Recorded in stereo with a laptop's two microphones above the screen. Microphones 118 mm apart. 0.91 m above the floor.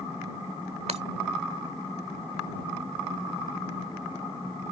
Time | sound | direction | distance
0.9 | breaking glass | 65° right (ahead or behind) | ?